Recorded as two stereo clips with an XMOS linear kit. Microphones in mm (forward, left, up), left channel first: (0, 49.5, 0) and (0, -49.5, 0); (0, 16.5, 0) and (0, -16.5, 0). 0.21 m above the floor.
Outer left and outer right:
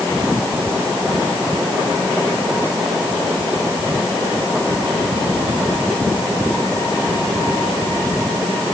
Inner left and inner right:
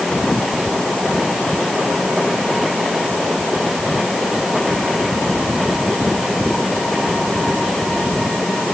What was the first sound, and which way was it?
Only background noise.